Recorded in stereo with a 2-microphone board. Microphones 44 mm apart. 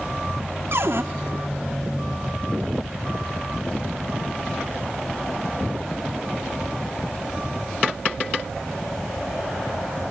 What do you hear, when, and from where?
0.7 s a cupboard door: 65° right (ahead or behind), 1.6 m